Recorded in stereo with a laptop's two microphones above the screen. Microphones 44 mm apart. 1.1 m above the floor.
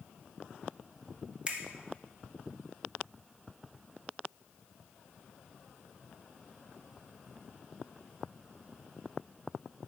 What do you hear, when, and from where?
1.5 s a finger snap: 20° right (ahead or behind), 0.6 m